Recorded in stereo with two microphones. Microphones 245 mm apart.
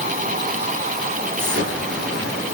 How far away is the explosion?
About 9 m.